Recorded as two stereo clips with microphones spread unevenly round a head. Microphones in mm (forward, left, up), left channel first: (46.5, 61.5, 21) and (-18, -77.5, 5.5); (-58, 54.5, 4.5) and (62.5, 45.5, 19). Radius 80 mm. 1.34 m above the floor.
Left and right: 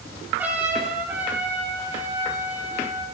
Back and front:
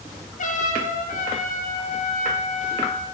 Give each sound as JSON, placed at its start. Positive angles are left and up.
{"t": 0.4, "sound": "a trumpet", "azimuth_deg": 165, "distance_m": 7.5}